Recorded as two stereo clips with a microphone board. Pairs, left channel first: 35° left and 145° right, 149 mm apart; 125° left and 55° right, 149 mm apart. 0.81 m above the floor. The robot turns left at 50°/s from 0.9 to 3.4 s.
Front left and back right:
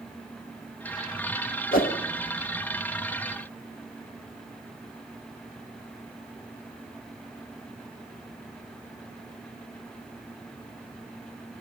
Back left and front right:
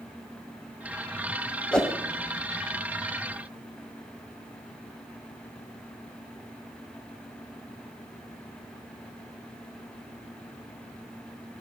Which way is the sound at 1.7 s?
45° left.